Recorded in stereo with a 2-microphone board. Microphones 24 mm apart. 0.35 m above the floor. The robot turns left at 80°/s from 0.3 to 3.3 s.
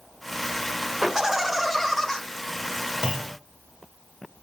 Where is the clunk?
35° right (ahead or behind), 1.0 m; by 3.4 s 25° right (ahead or behind), 1.0 m.